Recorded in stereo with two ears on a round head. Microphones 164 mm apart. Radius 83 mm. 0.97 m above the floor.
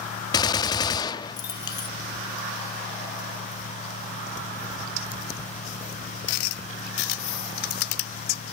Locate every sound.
0.3 s a gunshot: 20° left (ahead or behind), 0.6 m